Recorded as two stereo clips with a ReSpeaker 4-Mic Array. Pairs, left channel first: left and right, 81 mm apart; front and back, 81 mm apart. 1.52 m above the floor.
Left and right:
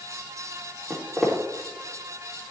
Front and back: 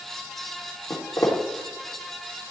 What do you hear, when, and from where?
0.9 s footsteps: straight ahead, 2 m